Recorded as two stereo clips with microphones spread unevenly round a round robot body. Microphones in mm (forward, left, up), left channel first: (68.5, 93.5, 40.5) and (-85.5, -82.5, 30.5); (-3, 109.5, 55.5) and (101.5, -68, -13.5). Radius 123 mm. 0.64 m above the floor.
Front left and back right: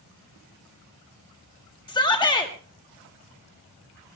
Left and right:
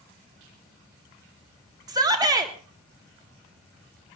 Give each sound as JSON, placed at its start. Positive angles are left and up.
{"t": 1.9, "sound": "a shout", "azimuth_deg": -20, "distance_m": 1.5}